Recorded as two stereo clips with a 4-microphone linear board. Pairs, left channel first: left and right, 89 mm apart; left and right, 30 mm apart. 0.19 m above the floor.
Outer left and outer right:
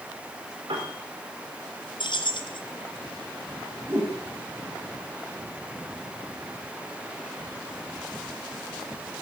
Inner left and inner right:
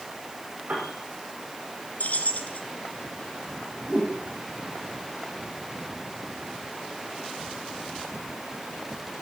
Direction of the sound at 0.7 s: 75° right (ahead or behind).